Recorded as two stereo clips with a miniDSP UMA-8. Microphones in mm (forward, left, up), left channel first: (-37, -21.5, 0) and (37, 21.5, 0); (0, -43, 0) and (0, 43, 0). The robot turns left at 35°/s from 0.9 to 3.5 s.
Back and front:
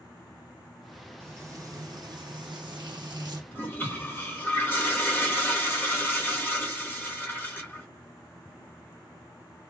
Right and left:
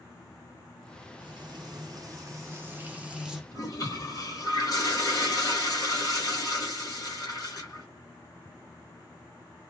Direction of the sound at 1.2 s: 80° left.